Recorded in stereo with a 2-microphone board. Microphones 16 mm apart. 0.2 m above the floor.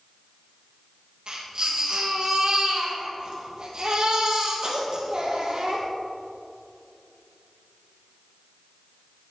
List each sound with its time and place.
1.3 s a baby crying: 45° right (ahead or behind), 3.5 m